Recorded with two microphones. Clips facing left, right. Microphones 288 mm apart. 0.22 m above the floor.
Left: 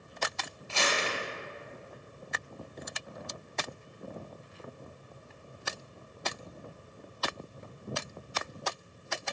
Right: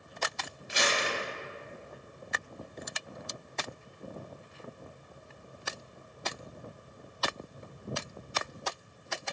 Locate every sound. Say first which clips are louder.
0.7 s crumpling: right 1 dB; 20° right (ahead or behind), 1.2 m